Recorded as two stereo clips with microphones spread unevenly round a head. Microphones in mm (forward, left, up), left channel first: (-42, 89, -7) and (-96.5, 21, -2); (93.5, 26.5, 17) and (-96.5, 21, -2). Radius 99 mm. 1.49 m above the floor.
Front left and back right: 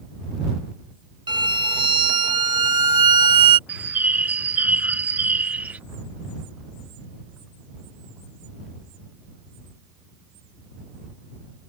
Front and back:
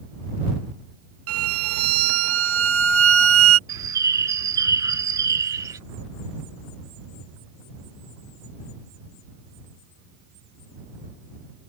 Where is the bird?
115° right.